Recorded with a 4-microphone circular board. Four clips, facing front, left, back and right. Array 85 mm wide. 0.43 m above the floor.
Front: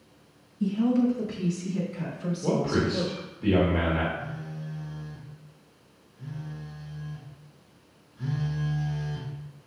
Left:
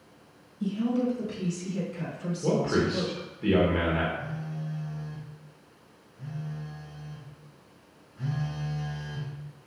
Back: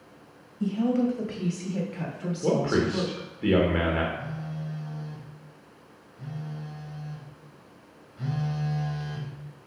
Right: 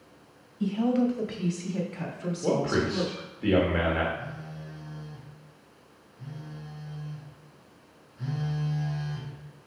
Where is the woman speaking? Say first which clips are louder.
Right 2 dB, front 1 dB; 115° right, 1.9 m; by 3.3 s 165° right, 3 m.